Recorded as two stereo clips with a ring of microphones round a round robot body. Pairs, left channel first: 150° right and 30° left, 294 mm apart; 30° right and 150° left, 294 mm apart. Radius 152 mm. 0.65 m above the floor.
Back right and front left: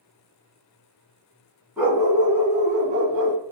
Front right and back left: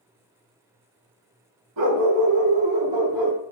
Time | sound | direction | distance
1.8 | a dog barking | 115° left | 1.2 m